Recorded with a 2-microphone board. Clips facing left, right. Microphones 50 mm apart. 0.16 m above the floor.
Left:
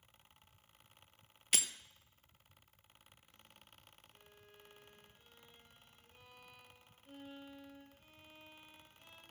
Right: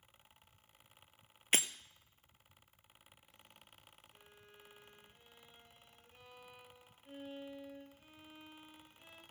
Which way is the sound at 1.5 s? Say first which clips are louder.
Right 4 dB; 35° right (ahead or behind).